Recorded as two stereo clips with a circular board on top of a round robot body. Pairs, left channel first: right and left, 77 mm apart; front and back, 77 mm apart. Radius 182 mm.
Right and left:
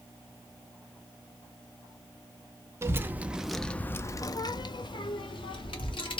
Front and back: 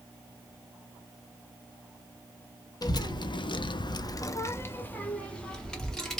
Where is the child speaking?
35° left, 0.7 m; by 6.2 s 85° right, 1.3 m.